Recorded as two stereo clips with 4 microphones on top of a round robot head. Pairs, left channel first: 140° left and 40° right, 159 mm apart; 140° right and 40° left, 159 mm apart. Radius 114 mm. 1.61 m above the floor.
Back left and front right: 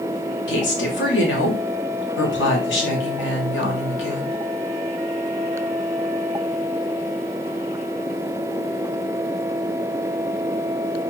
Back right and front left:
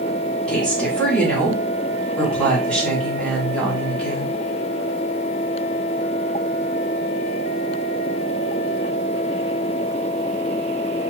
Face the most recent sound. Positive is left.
turn(degrees=135)